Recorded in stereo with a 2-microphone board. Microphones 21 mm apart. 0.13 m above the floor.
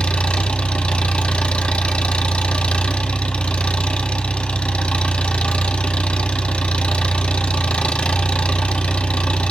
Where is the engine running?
65° left (ahead or behind), 1.0 m.